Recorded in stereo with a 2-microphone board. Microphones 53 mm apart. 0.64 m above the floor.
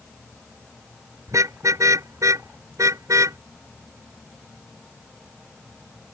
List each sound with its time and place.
1.3 s a car horn: 85° right